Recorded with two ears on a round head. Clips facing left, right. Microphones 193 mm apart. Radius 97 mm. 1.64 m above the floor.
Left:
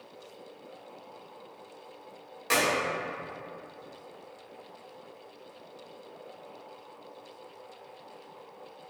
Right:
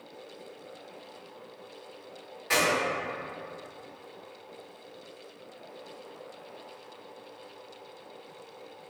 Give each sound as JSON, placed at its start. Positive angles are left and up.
{"t": 2.5, "sound": "a clap", "side_deg": 60, "distance_m": 1.8}